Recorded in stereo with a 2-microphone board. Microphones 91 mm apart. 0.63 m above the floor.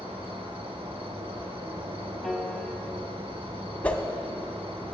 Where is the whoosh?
15° left (ahead or behind), 0.7 m.